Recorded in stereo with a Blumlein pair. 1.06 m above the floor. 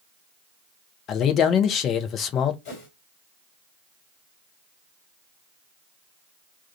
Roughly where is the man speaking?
Ahead left.